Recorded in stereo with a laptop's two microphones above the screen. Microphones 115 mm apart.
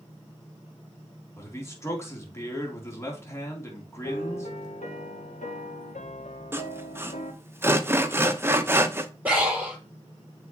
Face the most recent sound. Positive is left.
turn(degrees=-15)  # may be behind; listen again after turning